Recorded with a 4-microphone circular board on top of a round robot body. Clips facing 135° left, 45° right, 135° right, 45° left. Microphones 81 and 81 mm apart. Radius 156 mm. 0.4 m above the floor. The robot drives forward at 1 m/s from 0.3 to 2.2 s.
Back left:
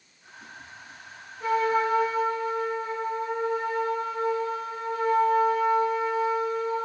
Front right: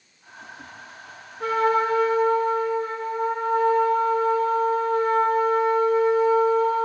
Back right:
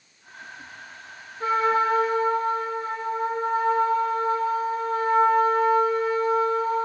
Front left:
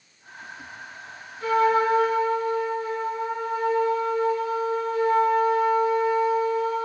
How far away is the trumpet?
About 5.5 m.